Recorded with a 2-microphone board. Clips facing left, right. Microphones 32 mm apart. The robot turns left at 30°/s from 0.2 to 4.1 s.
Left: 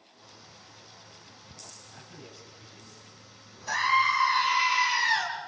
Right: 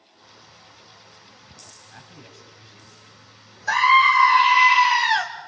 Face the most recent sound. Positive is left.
turn(degrees=-70)  # may be behind; listen again after turning